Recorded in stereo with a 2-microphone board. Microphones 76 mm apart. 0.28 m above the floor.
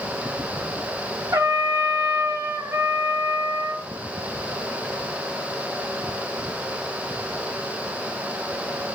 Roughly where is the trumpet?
Right.